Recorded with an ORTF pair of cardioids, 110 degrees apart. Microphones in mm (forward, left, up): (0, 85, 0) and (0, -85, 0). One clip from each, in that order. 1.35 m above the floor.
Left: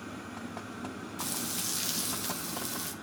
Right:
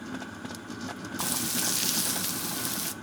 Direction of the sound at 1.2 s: 30° right.